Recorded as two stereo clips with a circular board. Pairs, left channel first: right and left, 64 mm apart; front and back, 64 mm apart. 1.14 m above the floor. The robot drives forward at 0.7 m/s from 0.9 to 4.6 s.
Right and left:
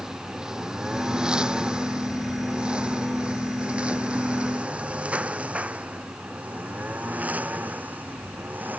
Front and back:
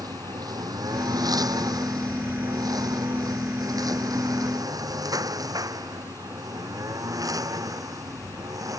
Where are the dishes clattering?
I don't hear dishes clattering.